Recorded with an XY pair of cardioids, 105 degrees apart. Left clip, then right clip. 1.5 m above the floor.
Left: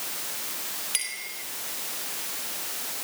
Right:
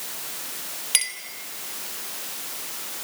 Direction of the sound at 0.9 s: 50° right.